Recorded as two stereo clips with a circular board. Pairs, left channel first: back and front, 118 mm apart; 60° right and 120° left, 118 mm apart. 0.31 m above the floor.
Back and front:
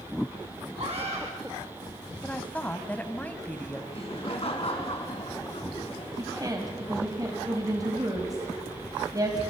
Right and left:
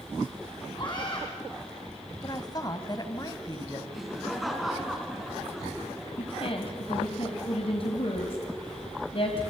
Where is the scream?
15° right, 3 m.